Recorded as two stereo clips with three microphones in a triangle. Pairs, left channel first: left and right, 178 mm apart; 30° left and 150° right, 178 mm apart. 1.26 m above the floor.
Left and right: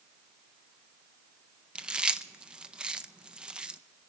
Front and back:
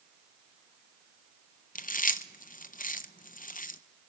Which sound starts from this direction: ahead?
Chewing, at 1.8 s.